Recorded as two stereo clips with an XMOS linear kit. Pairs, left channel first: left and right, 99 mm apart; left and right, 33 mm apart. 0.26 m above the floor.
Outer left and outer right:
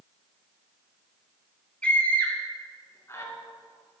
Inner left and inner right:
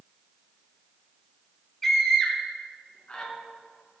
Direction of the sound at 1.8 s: 10° left (ahead or behind).